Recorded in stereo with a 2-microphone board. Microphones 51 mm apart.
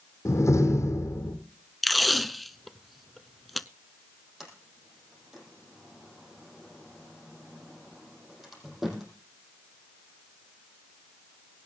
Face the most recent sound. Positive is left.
turn(degrees=-5)  # may be behind; listen again after turning